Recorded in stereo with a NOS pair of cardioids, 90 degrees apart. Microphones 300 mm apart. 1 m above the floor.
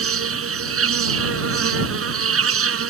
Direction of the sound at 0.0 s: 50° right.